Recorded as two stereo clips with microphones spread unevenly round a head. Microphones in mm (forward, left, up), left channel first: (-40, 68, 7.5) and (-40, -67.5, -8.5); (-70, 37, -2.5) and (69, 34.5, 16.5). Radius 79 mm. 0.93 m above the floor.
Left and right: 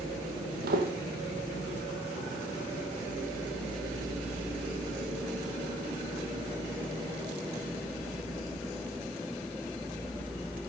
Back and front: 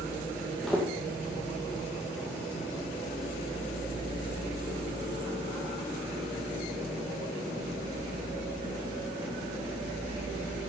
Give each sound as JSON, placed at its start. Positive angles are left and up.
{"t": 0.6, "sound": "footsteps", "azimuth_deg": -90, "distance_m": 1.9}